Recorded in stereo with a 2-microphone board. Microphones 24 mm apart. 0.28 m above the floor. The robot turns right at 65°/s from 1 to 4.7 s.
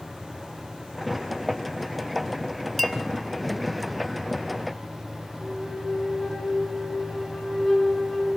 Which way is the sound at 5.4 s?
30° left (ahead or behind).